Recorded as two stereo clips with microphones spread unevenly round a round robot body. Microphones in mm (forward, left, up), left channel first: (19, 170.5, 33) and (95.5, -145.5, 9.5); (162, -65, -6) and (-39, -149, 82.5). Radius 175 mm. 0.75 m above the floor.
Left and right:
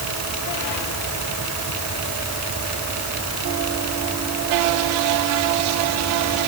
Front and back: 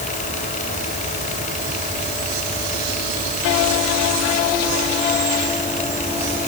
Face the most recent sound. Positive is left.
No sound to turn to.